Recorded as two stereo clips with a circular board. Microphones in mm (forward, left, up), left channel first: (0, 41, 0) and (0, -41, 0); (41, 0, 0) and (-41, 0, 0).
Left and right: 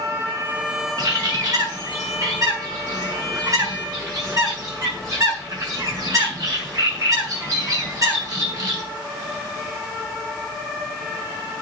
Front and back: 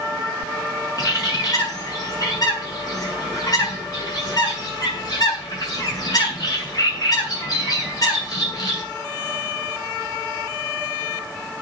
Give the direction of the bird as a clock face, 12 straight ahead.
1 o'clock.